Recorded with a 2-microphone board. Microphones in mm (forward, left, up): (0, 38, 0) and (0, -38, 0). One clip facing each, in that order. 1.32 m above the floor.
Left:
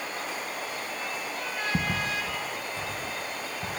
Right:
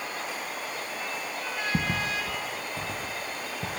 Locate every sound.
1.7 s footsteps: 15° right (ahead or behind), 1.5 m; by 3.7 s 65° right (ahead or behind), 4 m